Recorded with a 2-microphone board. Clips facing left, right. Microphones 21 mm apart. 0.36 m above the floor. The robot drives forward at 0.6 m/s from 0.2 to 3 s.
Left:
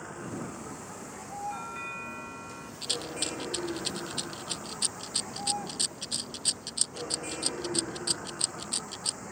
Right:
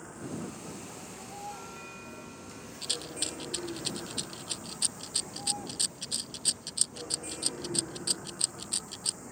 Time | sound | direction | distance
0.0 | a vehicle | 25° left (ahead or behind) | ?
1.5 | a doorbell | 35° left (ahead or behind) | ?
2.8 | a rattle | 5° left (ahead or behind) | ?